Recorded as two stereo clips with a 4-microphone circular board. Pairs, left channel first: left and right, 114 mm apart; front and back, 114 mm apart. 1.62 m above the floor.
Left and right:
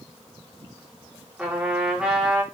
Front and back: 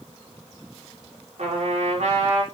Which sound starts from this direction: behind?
A trumpet, at 1.4 s.